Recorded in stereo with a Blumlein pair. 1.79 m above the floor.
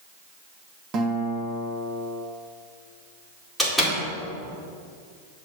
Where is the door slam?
Straight ahead, 2.5 m.